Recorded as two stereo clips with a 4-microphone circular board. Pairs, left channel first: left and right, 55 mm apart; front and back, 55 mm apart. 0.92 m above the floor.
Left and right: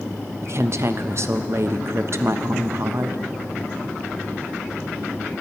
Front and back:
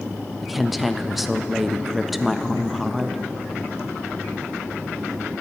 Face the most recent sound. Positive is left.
turn(degrees=-95)